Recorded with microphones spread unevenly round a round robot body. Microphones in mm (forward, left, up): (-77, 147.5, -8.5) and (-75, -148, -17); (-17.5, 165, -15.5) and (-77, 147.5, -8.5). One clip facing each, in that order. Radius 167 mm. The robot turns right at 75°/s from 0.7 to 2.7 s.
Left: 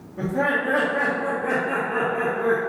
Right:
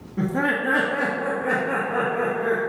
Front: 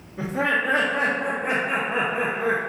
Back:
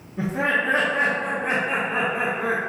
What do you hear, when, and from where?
0.2 s laughter: 100° right, 0.7 m; by 2.6 s 40° left, 0.7 m